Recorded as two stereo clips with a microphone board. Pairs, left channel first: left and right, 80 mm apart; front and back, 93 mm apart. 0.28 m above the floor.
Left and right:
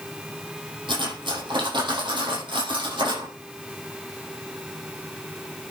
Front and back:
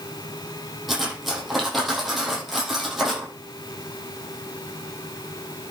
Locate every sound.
0.9 s cutlery clinking: 90° right, 6 m